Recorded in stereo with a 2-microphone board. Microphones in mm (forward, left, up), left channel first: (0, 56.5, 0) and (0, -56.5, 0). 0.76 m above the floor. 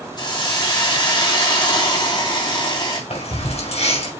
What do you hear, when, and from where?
0.2 s a hiss: 40° left (ahead or behind), 1.8 m
3.1 s keys jangling: 75° left (ahead or behind), 4 m